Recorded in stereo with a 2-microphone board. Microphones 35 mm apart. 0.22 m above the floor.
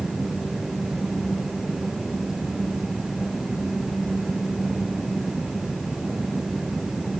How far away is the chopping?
I don't hear chopping.